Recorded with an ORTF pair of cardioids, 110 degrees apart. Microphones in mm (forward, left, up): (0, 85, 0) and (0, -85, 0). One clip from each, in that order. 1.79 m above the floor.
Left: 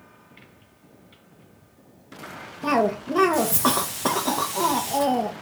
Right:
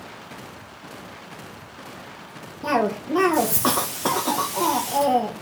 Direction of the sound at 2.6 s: 5° left.